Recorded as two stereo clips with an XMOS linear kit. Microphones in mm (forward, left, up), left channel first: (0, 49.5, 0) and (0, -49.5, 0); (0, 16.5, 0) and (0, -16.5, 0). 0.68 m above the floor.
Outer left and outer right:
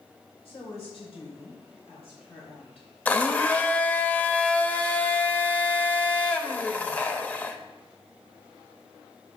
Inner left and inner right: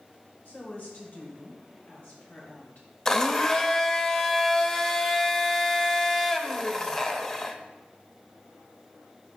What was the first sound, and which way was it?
A woman speaking, 65° left (ahead or behind).